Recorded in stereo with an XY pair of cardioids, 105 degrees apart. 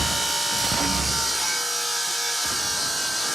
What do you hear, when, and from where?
0.0 s a machine running: 5° right, 0.9 m